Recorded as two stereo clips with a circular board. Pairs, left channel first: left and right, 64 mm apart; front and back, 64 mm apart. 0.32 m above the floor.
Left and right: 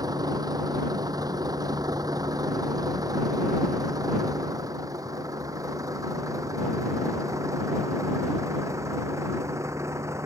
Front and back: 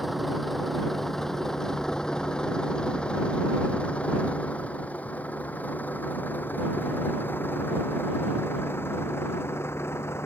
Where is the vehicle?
90° right; by 10.3 s 50° right.